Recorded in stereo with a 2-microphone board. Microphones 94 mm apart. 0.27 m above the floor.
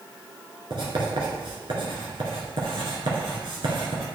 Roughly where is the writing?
Right.